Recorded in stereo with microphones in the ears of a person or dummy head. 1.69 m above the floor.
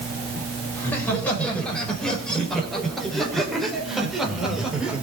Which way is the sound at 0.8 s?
Centre (ahead or behind).